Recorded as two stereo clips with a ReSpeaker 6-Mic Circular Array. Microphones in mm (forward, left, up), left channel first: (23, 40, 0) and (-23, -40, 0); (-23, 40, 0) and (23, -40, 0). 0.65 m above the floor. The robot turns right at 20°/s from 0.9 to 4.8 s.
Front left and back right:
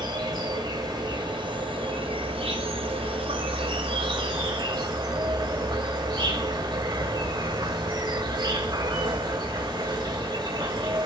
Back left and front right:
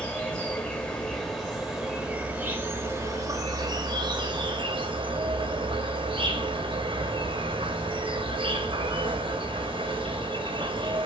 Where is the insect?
160° right, 1.6 m; by 11.1 s 85° right, 1.6 m.